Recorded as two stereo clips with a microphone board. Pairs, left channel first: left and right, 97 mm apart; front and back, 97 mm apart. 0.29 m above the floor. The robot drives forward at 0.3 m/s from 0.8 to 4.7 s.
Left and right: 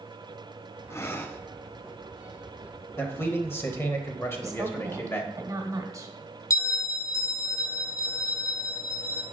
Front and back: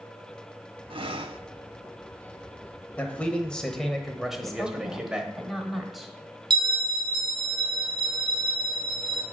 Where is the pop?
I don't hear a pop.